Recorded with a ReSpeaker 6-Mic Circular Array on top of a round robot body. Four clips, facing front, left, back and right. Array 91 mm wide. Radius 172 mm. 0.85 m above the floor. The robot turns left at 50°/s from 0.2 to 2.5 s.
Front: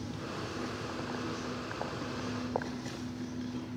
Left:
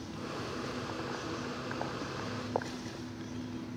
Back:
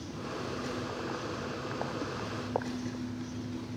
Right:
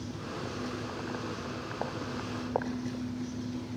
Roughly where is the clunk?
No clunk in this recording.